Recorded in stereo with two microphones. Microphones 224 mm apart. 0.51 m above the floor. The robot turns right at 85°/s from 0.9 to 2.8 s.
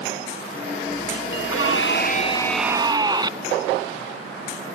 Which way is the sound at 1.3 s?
75° left.